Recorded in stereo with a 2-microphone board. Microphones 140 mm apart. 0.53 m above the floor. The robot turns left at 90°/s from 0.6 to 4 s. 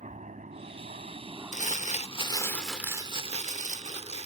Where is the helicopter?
60° right (ahead or behind); by 4.3 s 30° right (ahead or behind).